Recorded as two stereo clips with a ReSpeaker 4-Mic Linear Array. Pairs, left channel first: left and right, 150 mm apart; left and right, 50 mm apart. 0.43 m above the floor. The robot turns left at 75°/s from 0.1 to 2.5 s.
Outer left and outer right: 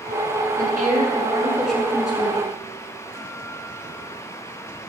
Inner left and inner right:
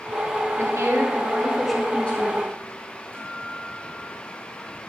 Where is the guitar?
40° right (ahead or behind), 8 m.